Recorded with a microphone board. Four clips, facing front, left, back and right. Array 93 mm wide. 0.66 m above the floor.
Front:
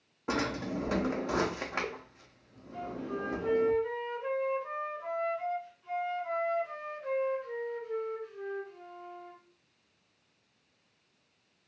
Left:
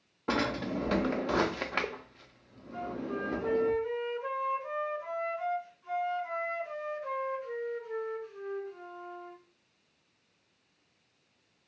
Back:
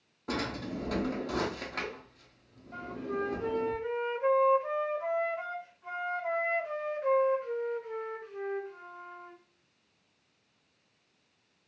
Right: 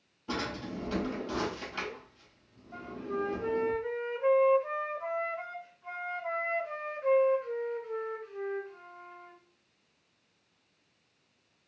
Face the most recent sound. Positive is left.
turn(degrees=-145)